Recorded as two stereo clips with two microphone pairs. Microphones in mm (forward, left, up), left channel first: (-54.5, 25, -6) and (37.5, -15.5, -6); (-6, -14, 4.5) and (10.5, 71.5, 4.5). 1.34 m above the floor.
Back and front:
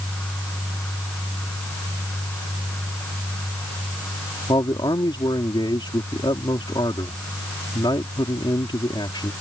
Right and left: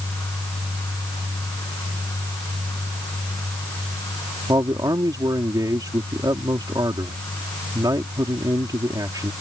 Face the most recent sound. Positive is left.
turn(degrees=120)